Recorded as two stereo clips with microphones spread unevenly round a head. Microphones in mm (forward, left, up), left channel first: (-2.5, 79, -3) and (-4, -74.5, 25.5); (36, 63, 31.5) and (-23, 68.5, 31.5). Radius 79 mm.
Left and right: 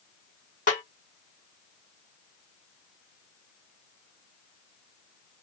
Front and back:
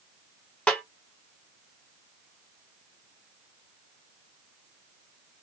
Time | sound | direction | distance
0.7 | a snare drum | 60° left | 1.2 m